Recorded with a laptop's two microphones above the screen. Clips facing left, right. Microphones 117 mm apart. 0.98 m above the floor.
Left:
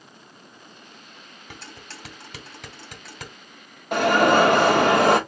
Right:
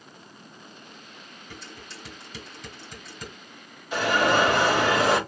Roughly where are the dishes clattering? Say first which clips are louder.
Left 1 dB; left.